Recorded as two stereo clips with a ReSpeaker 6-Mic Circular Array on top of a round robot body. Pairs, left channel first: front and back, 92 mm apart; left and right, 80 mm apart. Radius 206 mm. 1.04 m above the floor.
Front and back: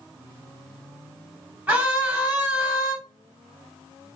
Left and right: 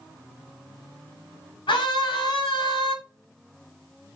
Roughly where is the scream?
Left.